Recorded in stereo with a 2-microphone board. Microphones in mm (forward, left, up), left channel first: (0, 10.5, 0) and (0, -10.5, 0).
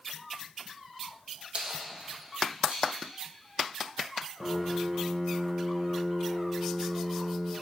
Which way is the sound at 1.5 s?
70° right (ahead or behind).